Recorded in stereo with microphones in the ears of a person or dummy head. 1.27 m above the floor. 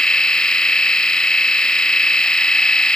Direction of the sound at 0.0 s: 5° left (ahead or behind).